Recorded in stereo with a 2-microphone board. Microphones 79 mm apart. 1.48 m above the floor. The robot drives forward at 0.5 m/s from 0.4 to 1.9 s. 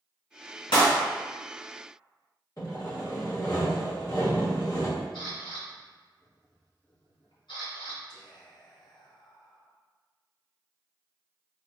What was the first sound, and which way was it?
A clap, 80° left.